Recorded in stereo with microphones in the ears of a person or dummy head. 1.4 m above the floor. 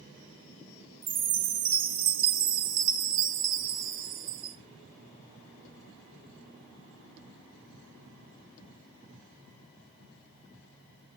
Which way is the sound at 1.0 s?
50° right (ahead or behind).